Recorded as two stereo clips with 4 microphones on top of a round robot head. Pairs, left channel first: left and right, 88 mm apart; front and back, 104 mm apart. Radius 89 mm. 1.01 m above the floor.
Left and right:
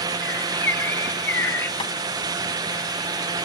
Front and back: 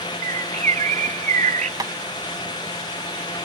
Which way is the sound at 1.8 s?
125° left.